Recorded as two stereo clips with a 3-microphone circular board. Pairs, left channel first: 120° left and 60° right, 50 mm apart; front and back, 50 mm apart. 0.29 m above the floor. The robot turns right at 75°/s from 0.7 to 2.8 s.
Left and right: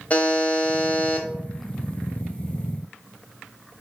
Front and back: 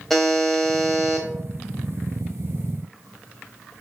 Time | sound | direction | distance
0.1 | a buzzer | 85° left | 0.9 m